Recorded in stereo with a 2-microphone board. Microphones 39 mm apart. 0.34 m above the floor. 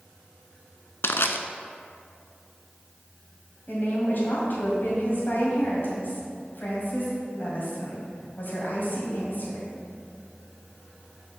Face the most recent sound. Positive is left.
turn(degrees=55)  # may be behind; listen again after turning